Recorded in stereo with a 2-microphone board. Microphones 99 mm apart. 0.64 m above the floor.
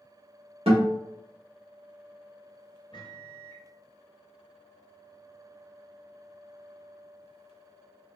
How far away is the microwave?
About 0.7 m.